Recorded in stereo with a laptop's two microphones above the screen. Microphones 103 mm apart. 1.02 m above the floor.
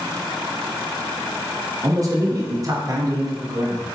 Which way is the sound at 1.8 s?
40° right (ahead or behind).